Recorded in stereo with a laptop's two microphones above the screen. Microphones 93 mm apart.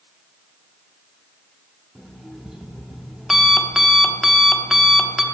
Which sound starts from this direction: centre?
An alarm clock, at 1.9 s.